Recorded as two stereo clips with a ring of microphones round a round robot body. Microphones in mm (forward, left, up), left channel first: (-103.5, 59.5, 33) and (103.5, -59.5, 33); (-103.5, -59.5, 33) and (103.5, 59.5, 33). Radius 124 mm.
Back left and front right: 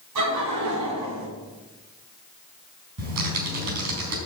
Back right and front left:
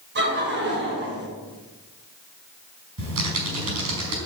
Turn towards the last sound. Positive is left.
turn(degrees=0)